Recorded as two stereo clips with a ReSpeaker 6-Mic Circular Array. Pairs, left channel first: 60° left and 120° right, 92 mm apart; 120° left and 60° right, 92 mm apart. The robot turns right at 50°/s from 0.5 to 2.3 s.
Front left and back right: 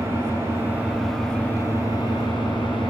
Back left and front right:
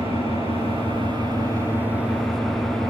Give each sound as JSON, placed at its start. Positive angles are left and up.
{"t": 0.0, "sound": "an engine running", "azimuth_deg": -60, "distance_m": 8.5}